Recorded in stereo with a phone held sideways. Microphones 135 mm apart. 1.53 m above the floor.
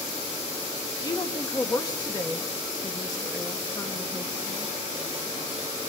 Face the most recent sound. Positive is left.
turn(degrees=25)  # may be behind; listen again after turning